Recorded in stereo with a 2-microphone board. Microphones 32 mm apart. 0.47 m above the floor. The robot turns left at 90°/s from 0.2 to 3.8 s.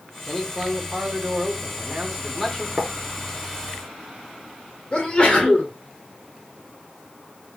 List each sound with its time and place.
0.3 s a man speaking: 15° left, 1.1 m; by 2.7 s 155° left, 1.1 m
2.8 s writing: 55° right (ahead or behind), 1.1 m; by 2.9 s 60° right (ahead or behind), 1.1 m
4.9 s a sneeze: 35° left (ahead or behind), 1.6 m